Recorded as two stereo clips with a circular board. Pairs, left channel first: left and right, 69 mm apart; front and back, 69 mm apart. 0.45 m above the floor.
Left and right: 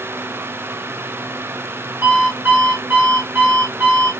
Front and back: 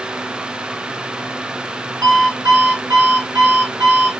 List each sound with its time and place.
2.0 s an alarm clock: 150° right, 1.4 m